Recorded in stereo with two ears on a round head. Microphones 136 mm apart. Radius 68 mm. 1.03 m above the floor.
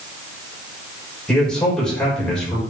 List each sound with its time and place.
1.3 s a man speaking: 5° left (ahead or behind), 4.5 m